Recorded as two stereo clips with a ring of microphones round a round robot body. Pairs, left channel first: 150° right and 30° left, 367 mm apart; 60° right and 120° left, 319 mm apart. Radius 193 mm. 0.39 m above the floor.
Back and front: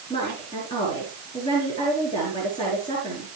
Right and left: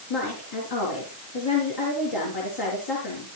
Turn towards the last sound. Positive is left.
turn(degrees=-75)